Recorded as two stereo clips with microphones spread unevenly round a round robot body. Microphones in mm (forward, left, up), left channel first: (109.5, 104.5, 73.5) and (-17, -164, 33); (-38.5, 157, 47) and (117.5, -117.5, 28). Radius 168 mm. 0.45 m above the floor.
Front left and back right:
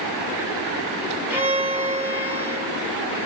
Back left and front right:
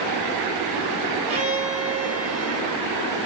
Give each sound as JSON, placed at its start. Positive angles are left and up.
{"t": 1.3, "sound": "a violin", "azimuth_deg": -65, "distance_m": 1.3}